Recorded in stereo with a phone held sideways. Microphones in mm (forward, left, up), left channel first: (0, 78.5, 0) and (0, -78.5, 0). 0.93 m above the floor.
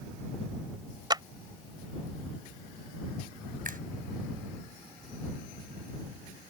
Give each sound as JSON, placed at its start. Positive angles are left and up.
{"t": 1.1, "sound": "a clap", "side_deg": -25}
{"t": 3.6, "sound": "a finger snap", "side_deg": -65}